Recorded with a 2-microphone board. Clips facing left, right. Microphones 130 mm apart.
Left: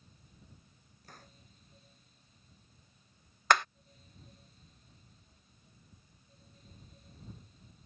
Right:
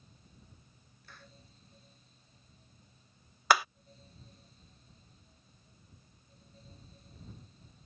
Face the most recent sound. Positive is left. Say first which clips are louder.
# right 1 dB
turn(degrees=-10)  # may be behind; listen again after turning